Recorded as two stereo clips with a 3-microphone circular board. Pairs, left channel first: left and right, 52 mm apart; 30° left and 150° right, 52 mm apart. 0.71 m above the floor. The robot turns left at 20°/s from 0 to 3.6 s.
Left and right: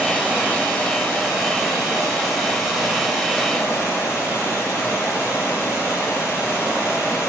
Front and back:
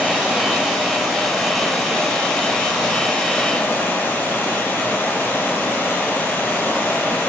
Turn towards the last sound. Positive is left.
turn(degrees=75)